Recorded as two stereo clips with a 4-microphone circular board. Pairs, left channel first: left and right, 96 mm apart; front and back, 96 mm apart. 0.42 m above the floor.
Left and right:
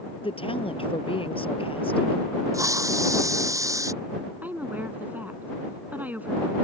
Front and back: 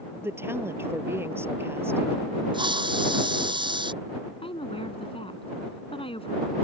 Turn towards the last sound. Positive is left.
turn(degrees=-15)